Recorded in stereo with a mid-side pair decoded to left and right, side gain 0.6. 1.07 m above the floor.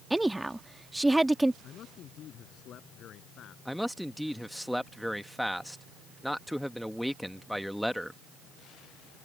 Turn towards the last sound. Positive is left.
turn(degrees=0)